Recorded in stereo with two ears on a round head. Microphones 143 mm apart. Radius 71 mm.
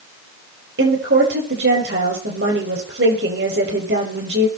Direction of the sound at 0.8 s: 80° right.